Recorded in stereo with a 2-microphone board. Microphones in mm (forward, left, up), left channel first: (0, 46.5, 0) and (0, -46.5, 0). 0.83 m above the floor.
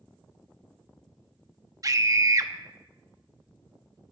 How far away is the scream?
About 1.0 m.